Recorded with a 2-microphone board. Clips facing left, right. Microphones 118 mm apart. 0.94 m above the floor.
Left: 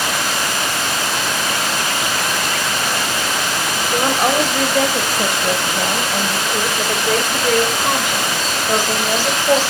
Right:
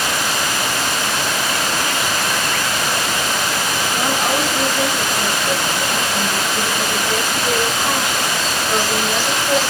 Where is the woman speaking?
75° left (ahead or behind), 4.5 m; by 9.6 s 35° left (ahead or behind), 4.5 m.